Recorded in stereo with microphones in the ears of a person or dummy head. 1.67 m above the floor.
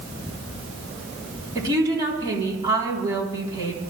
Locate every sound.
1.6 s a woman speaking: 20° right (ahead or behind), 3.5 m